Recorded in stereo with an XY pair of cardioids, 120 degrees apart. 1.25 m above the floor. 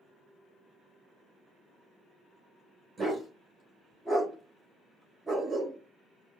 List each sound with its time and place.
3.0 s a dog barking: 20° right, 2.0 m